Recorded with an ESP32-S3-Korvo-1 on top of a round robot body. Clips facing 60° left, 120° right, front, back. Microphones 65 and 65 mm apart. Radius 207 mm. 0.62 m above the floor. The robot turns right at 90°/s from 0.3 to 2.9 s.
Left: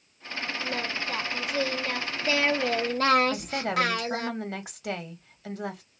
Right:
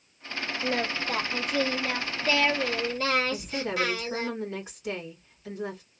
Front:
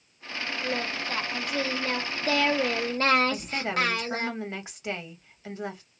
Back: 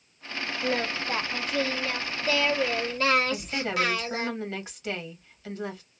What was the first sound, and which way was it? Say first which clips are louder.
Singing: right 5 dB, back 4 dB; 160° right.